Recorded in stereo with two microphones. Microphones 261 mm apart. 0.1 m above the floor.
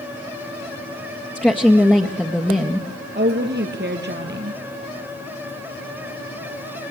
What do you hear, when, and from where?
1.4 s a woman speaking: 5° left (ahead or behind), 1.7 m
3.1 s a woman speaking: 40° right (ahead or behind), 2.5 m